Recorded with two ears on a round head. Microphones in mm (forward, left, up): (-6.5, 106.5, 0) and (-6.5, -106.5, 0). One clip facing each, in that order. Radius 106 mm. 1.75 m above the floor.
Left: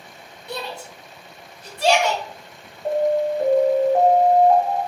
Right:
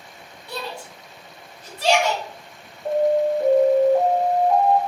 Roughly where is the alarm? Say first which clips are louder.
Right 1 dB; left.